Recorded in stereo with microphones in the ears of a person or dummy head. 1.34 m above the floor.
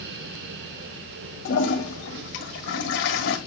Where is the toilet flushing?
60° left (ahead or behind), 1.4 m.